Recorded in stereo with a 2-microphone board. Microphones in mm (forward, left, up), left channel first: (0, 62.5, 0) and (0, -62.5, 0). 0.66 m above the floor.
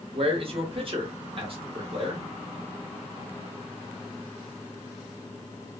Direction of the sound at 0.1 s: 45° right (ahead or behind).